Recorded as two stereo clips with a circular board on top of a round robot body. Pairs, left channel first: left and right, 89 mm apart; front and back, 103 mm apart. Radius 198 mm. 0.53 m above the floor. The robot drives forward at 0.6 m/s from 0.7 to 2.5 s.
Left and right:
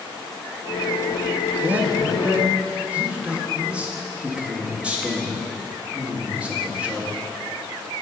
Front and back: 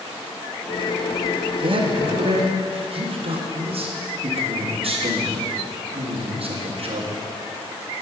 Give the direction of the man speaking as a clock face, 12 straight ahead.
5 o'clock.